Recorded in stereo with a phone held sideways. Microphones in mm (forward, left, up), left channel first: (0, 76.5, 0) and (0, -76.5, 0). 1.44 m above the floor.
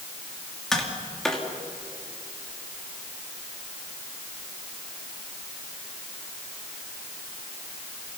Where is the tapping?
5° left (ahead or behind), 2.5 m.